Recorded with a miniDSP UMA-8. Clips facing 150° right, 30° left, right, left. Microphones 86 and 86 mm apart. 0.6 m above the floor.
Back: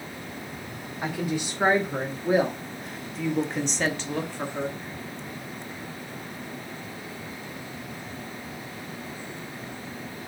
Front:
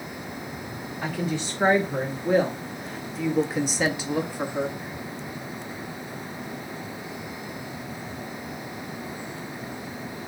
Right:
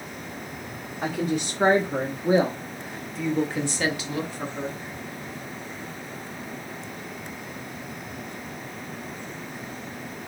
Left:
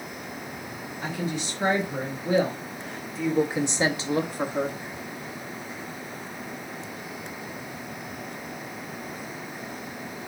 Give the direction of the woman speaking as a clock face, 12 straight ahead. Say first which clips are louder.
Even, right 5 dB; 3 o'clock.